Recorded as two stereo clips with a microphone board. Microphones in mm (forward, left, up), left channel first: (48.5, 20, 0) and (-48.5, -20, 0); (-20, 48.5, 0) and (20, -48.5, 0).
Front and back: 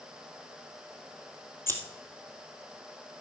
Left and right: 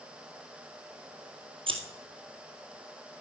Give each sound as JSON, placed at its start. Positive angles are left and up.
{"t": 1.7, "sound": "scissors", "azimuth_deg": -45, "distance_m": 1.7}